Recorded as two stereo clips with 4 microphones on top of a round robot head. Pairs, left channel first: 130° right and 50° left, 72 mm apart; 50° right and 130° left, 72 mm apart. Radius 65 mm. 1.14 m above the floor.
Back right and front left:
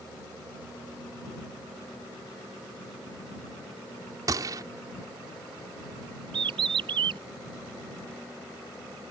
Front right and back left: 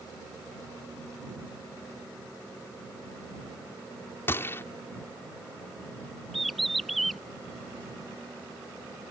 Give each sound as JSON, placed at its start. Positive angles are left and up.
{"t": 4.3, "sound": "a gunshot", "azimuth_deg": 10}
{"t": 6.3, "sound": "a bird", "azimuth_deg": 35}